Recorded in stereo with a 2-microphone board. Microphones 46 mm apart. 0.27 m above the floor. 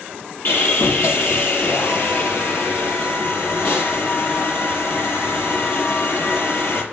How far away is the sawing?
About 6 m.